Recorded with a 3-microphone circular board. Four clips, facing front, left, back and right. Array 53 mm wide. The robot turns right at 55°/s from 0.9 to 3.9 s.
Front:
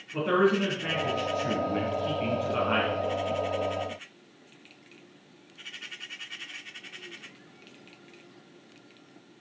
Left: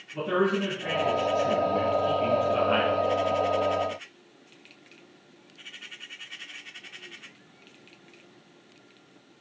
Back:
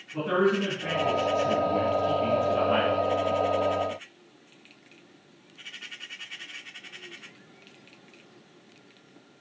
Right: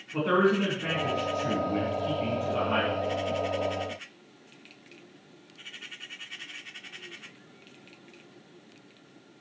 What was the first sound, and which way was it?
A man speaking, 75° right.